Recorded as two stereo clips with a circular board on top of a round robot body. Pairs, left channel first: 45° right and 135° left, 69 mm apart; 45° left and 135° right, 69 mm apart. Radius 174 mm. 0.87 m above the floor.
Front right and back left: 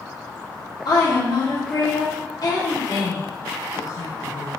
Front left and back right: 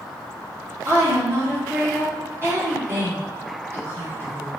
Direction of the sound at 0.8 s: 75° right.